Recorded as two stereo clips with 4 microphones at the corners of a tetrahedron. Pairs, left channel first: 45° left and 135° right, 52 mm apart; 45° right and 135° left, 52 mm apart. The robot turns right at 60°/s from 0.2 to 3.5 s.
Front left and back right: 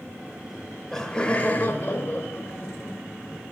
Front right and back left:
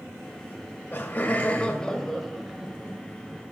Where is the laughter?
55° right, 1.0 m; by 3.0 s 90° left, 1.0 m.